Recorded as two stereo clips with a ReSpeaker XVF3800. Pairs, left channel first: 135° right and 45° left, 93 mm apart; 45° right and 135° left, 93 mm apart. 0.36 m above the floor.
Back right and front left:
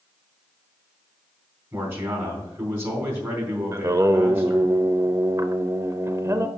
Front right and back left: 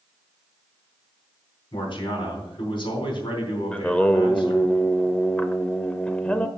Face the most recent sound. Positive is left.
turn(degrees=25)